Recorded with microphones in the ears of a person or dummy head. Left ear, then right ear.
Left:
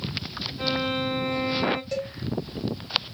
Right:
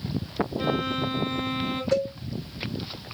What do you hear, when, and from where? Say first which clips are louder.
0.6 s a violin: left 3 dB; 10° left (ahead or behind), 1.9 m
1.9 s a cowbell: right 6 dB; centre (ahead or behind), 1.8 m